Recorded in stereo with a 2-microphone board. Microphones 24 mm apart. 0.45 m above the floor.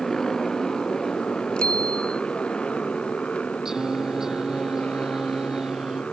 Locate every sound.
0.0 s a motorcycle: 20° left (ahead or behind); by 6.1 s 55° left (ahead or behind)
1.6 s a bicycle bell: 45° left (ahead or behind)
3.6 s singing: 25° right (ahead or behind)